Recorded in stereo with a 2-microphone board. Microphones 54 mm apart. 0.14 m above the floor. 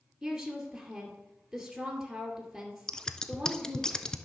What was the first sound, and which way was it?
A woman speaking, 5° right (ahead or behind).